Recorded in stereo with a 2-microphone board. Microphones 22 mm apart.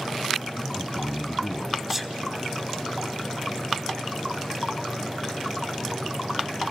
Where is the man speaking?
Centre (ahead or behind), 2.5 m.